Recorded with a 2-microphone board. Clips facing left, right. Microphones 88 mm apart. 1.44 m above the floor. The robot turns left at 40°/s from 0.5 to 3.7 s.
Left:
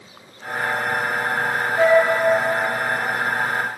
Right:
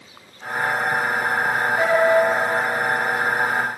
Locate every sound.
1.8 s a flute: 25° left (ahead or behind), 3.5 m; by 2.0 s 35° left (ahead or behind), 3.5 m